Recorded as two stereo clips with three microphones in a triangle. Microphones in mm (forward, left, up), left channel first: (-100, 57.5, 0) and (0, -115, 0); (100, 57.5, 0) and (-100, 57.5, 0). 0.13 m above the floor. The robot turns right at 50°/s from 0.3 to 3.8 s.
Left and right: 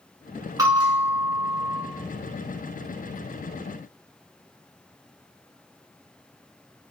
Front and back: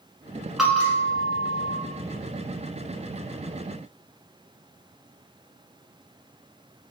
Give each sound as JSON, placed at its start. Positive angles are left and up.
{"t": 0.6, "sound": "a bell", "azimuth_deg": -95, "distance_m": 1.2}